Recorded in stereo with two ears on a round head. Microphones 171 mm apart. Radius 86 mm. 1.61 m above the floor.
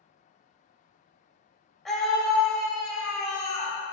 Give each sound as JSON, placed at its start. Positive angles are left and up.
{"t": 1.9, "sound": "a scream", "side_deg": 0, "distance_m": 1.2}